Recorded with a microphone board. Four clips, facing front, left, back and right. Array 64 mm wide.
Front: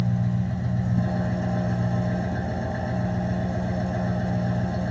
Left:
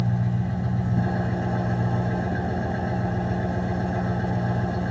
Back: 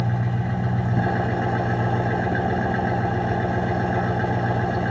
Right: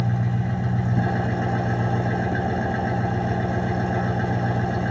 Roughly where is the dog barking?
No dog barking in this recording.